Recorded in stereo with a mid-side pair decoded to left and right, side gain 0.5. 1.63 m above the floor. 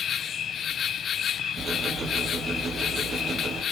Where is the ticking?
40° right, 6.5 m.